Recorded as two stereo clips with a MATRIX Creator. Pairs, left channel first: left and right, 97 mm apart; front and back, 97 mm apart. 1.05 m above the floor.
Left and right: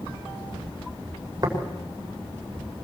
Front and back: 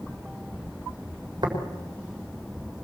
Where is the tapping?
140° right, 5 m.